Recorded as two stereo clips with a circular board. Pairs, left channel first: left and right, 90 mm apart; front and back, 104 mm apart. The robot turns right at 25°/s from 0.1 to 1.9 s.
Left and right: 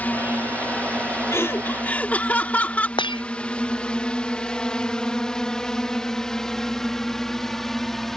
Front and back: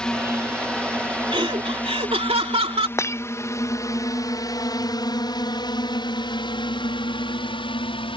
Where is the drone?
65° left; by 8.2 s 5° left.